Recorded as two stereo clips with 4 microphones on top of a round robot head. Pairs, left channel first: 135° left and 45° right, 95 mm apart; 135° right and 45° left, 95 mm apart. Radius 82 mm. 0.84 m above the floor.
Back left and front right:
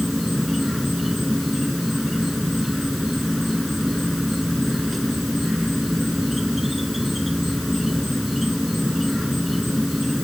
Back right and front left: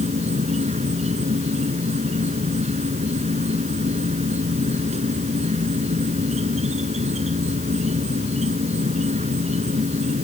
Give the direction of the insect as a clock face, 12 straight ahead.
11 o'clock.